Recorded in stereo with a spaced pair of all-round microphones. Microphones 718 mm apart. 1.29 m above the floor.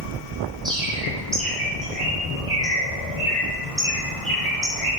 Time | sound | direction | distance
0.7 | a bird | centre (ahead or behind) | 3 m